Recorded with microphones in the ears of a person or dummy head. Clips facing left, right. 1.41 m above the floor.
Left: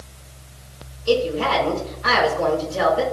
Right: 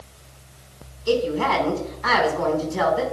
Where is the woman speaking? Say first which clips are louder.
Left 1 dB; 85° right, 4 m.